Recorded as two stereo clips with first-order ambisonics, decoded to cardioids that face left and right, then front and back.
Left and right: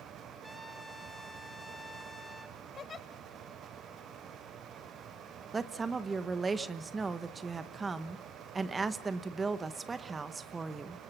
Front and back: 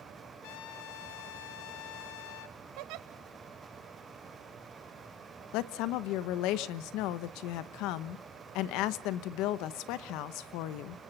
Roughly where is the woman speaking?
Ahead.